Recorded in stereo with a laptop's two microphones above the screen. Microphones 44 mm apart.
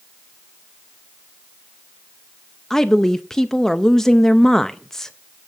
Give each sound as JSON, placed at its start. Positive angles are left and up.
{"t": 2.7, "sound": "a woman speaking", "side_deg": 10, "distance_m": 0.5}